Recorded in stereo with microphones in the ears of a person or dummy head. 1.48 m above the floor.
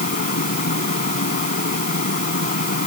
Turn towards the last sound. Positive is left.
turn(degrees=50)  # may be behind; listen again after turning